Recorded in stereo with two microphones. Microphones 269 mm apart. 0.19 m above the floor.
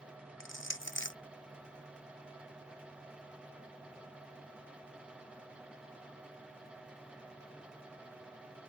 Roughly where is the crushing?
Left.